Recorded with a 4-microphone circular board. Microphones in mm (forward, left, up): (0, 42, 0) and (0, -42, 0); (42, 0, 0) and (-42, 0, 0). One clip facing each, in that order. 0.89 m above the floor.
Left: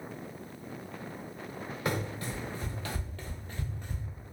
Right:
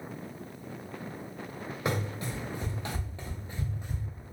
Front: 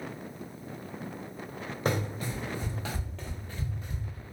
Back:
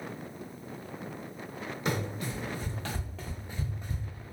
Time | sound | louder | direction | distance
1.9 | running footsteps | right 1 dB, front 2 dB | 30° right | 1.3 m